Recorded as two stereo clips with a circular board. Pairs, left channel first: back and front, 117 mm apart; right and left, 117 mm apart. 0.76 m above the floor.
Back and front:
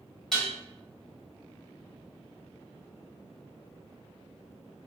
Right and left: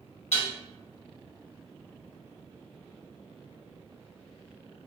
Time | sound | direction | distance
0.3 | dishes clattering | 95° right | 1.1 m